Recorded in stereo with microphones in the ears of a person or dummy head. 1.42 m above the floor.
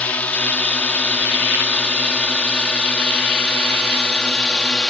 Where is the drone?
10° left (ahead or behind); by 4.9 s 5° left (ahead or behind).